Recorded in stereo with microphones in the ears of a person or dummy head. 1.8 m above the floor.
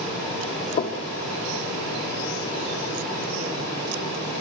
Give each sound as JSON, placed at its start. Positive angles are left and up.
{"t": 0.8, "sound": "knocking", "side_deg": 40, "distance_m": 0.6}